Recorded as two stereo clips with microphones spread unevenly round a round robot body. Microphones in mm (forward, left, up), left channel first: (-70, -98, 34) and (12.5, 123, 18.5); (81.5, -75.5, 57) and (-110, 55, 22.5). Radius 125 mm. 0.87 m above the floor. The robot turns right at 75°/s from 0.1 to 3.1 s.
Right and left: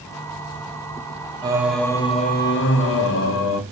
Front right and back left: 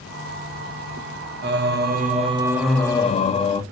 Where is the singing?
135° left, 0.5 m; by 3.6 s 100° right, 0.5 m.